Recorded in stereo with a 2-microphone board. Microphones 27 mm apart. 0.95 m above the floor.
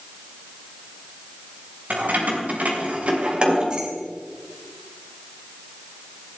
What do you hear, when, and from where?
1.9 s keys jangling: 70° right (ahead or behind), 3 m; by 3.9 s 25° right (ahead or behind), 2.5 m